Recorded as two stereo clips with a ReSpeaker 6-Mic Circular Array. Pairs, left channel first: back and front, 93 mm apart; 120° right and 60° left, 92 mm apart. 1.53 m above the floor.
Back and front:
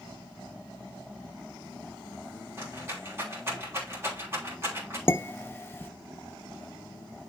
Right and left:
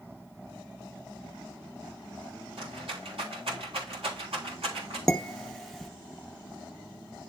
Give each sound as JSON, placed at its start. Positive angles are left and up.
{"t": 2.6, "sound": "a rattle", "azimuth_deg": 65, "distance_m": 3.5}
{"t": 5.1, "sound": "dishes clattering", "azimuth_deg": 155, "distance_m": 0.6}